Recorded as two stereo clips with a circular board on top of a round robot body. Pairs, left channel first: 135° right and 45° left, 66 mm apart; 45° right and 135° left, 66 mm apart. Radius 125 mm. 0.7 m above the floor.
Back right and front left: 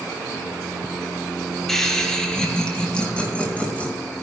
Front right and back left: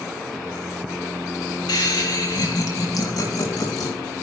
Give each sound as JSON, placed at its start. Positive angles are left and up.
{"t": 1.7, "sound": "laughter", "azimuth_deg": -50, "distance_m": 4.0}